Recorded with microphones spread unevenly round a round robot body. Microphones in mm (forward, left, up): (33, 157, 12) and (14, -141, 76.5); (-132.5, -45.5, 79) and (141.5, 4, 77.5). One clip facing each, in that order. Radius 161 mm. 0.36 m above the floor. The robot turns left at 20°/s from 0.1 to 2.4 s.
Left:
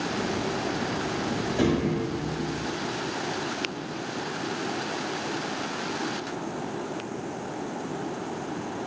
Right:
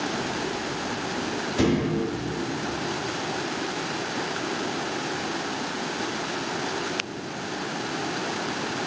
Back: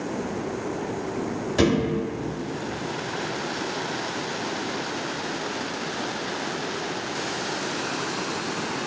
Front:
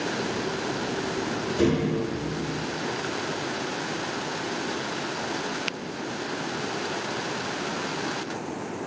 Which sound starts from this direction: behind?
A thud, at 1.6 s.